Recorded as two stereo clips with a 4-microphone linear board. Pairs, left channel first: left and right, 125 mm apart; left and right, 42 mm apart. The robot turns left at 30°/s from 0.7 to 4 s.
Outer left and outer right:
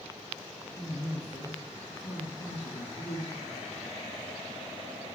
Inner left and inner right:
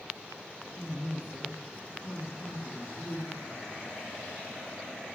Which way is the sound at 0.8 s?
145° left.